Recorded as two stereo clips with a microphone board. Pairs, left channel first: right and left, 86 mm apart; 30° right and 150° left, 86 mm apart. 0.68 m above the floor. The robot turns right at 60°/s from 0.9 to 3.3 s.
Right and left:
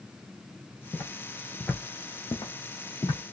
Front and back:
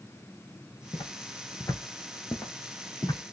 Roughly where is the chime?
I don't hear a chime.